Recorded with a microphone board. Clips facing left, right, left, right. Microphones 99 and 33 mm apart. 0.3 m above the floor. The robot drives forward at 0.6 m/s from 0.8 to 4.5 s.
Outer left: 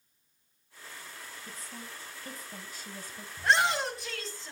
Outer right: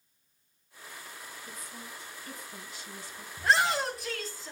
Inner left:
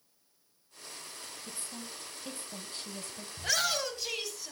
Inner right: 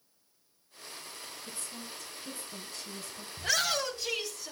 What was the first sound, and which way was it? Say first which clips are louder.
A woman speaking: outer left 1 dB, even; 30° left (ahead or behind).